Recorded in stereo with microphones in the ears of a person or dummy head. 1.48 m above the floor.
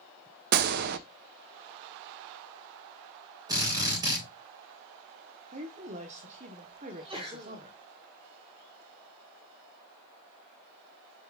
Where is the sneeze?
25° right (ahead or behind), 3.5 m.